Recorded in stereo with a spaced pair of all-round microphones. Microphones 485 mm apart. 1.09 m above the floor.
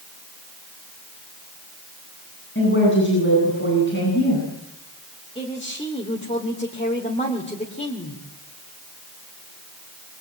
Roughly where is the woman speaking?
Left.